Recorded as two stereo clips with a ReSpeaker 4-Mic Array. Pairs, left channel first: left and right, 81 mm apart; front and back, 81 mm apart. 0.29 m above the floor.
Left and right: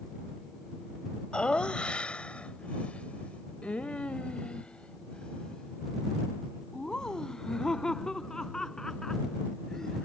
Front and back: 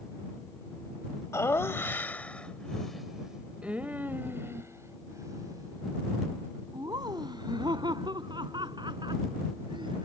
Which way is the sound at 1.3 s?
20° left.